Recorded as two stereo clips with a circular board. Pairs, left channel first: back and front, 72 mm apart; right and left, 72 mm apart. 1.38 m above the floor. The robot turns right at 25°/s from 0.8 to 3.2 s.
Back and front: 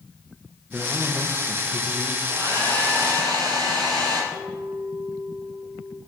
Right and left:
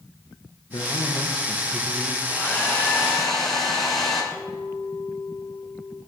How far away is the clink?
About 6 m.